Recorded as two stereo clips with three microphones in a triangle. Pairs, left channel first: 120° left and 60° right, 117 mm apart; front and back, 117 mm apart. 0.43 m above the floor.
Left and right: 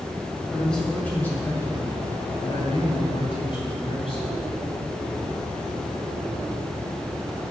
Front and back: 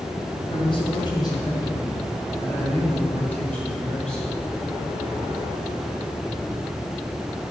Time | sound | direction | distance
0.5 | a man speaking | 35° left | 1.8 m